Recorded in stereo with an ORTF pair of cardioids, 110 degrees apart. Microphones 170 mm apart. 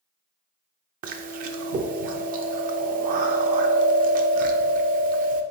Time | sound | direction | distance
1.0 | chewing | 55° right | 0.5 m